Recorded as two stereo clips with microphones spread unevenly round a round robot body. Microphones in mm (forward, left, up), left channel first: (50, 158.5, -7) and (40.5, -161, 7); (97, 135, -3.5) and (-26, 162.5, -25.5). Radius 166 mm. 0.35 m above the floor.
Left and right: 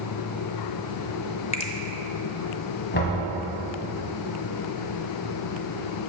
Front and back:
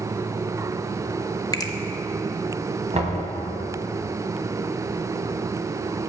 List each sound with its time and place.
1.5 s a finger snap: 40° left, 0.7 m
2.9 s knocking: 145° left, 1.7 m